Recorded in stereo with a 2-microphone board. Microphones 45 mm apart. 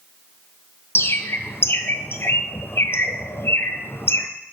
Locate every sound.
0.9 s a bird: 70° left (ahead or behind), 0.7 m